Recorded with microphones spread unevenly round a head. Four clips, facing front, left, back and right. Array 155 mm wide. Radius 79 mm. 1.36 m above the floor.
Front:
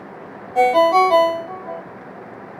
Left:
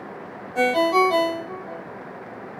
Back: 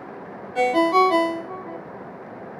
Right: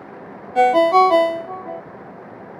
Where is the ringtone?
65° right, 1.6 m.